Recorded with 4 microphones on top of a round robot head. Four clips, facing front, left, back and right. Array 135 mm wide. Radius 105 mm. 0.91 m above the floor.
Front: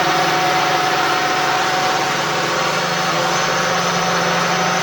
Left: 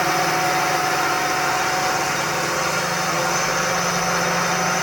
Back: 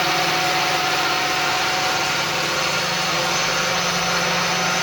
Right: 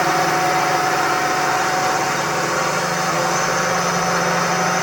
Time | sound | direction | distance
0.0 | a drone | 25° right | ?